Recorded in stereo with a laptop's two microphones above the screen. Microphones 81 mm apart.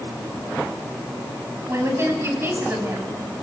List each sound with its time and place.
1.7 s a woman speaking: 35° right (ahead or behind), 7.5 m; by 3.1 s 30° right (ahead or behind), 7 m